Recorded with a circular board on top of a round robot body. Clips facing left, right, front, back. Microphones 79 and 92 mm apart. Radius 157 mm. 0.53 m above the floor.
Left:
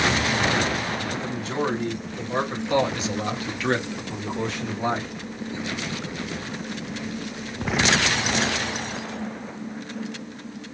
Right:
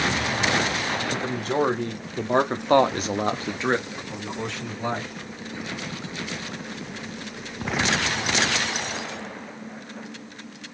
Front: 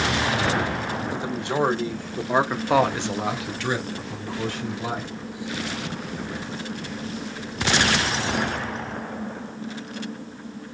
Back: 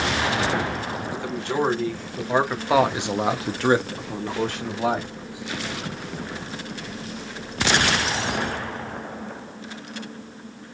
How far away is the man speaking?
About 1.9 m.